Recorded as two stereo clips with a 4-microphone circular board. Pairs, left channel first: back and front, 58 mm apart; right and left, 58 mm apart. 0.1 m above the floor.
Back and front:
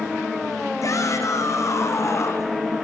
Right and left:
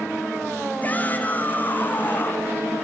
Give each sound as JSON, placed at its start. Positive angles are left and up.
{"t": 0.8, "sound": "a shout", "azimuth_deg": -150, "distance_m": 5.0}